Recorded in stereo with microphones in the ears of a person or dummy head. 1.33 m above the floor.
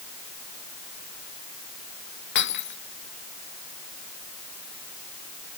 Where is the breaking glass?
60° left (ahead or behind).